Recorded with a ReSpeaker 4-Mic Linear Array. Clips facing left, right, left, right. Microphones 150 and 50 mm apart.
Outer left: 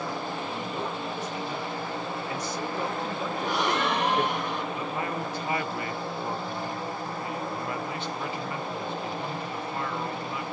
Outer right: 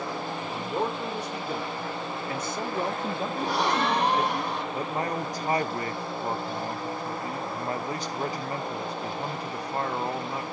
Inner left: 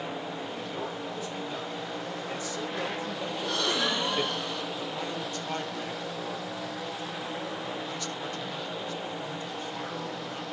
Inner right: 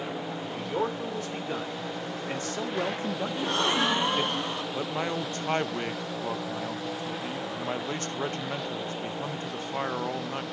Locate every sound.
0.4 s a man speaking: 70° right (ahead or behind), 2.5 m; by 4.3 s 5° left (ahead or behind), 0.8 m
3.4 s a gasp: 35° right (ahead or behind), 1.2 m
4.7 s a man speaking: 40° right (ahead or behind), 0.6 m